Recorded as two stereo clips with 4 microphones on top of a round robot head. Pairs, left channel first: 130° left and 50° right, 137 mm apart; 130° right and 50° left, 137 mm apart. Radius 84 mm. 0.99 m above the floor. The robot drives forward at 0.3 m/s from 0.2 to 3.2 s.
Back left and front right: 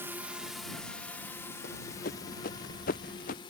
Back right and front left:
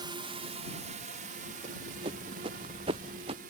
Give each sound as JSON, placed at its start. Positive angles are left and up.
{"t": 0.0, "sound": "a drone", "azimuth_deg": 15}
{"t": 1.6, "sound": "running footsteps", "azimuth_deg": 105}